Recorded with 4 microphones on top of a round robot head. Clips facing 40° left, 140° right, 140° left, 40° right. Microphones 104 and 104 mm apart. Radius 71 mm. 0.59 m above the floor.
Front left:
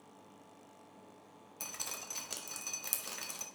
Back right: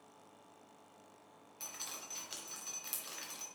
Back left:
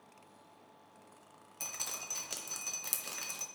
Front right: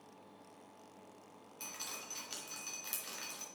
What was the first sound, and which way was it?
Dripping, 90° left.